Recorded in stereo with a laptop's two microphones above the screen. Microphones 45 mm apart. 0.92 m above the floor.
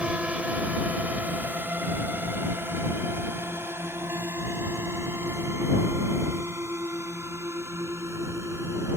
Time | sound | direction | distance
0.0 | a drone | 30° right (ahead or behind) | ?